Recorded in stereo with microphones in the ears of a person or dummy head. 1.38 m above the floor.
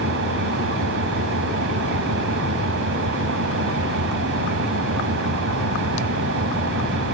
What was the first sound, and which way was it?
An engine running, 65° right (ahead or behind).